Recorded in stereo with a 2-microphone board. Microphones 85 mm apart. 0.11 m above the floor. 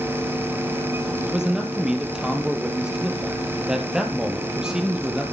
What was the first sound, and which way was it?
A man speaking, 10° right (ahead or behind).